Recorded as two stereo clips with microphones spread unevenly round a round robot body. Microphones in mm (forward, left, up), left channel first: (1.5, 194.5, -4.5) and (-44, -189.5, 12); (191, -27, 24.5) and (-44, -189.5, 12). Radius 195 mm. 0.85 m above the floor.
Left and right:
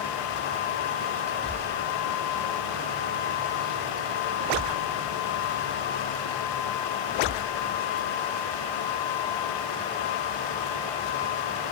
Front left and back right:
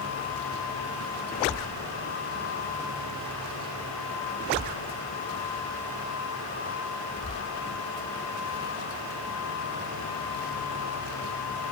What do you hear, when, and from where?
Only background noise.